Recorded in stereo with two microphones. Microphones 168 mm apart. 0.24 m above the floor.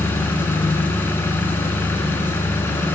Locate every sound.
0.0 s an engine running: 15° left (ahead or behind), 0.9 m